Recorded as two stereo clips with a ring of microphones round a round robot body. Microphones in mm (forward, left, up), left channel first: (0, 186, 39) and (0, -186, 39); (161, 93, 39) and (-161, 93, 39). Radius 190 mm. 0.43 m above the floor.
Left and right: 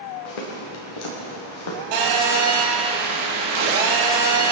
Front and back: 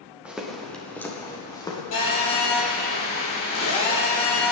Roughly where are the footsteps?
Left.